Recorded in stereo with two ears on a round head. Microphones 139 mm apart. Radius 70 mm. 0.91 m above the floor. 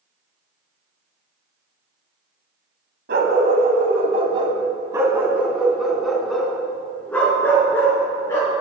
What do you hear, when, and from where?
3.1 s a dog barking: 65° right (ahead or behind), 2.5 m; by 8.5 s 20° left (ahead or behind), 5.5 m